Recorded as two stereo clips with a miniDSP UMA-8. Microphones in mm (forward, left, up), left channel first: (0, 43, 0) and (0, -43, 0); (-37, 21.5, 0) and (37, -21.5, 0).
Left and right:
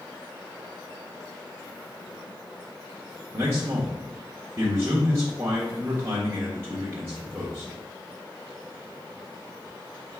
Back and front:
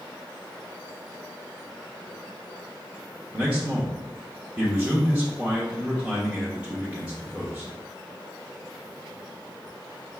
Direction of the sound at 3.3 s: 90° right.